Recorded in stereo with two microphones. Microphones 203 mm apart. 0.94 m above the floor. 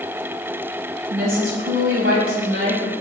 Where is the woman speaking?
75° right (ahead or behind), 6 m.